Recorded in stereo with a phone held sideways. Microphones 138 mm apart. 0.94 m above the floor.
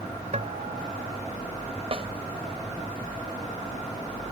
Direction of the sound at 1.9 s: 45° right (ahead or behind).